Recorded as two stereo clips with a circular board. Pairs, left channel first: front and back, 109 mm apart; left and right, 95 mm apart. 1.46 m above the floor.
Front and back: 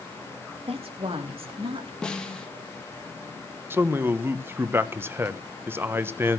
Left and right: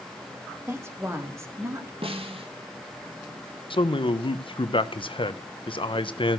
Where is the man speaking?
110° left, 1.1 m.